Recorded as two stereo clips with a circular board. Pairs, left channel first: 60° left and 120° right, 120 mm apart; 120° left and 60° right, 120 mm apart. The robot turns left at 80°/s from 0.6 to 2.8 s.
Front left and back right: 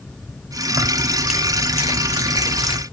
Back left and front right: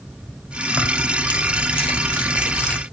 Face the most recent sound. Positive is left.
turn(degrees=40)